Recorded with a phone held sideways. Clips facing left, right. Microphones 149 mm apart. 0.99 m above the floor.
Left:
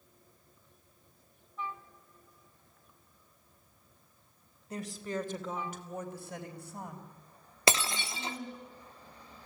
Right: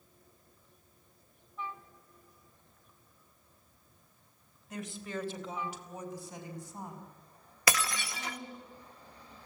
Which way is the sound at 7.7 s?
25° left (ahead or behind).